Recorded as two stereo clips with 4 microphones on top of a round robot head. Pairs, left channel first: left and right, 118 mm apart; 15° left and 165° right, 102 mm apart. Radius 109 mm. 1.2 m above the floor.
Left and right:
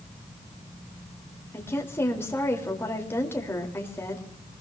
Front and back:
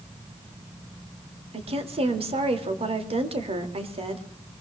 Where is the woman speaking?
165° left, 2.5 m.